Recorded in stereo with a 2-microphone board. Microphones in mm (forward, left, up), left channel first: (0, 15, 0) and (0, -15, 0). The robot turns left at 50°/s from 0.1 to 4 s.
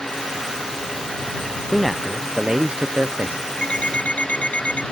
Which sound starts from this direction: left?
An alarm clock, at 3.6 s.